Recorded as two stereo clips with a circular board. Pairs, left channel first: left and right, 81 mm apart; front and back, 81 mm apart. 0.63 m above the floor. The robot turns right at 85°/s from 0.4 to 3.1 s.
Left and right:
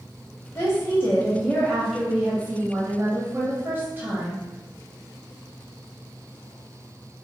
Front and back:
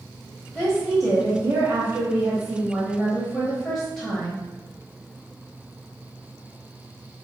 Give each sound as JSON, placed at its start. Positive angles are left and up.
{"t": 0.6, "sound": "a woman speaking", "azimuth_deg": 65, "distance_m": 1.1}